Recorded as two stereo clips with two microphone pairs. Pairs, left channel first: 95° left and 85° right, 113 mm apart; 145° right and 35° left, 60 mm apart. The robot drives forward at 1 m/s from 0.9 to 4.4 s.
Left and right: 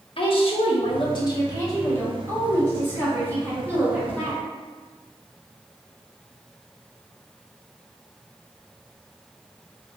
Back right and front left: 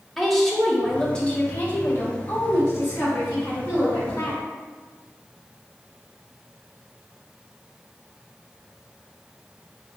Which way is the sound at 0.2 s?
125° left.